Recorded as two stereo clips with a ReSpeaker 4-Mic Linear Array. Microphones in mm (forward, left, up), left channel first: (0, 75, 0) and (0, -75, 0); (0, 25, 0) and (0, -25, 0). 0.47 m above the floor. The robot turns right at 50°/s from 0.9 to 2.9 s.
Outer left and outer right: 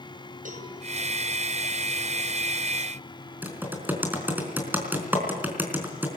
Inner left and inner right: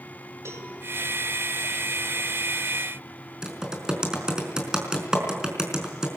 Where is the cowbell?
60° right (ahead or behind), 6 m.